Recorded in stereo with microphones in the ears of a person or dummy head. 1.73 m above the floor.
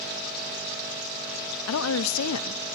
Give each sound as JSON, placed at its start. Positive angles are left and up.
{"t": 1.7, "sound": "a woman speaking", "side_deg": 85, "distance_m": 0.6}